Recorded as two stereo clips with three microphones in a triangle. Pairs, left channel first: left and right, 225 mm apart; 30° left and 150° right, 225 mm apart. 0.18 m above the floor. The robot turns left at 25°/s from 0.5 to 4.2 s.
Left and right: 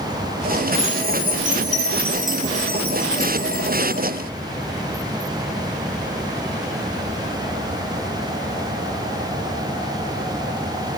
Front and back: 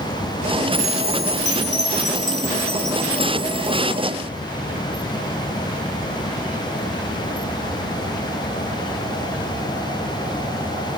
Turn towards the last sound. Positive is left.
turn(degrees=155)